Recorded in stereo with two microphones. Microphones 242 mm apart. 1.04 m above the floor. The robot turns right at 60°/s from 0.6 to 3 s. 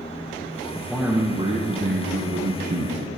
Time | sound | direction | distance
0.7 | a man speaking | 170° left | 0.7 m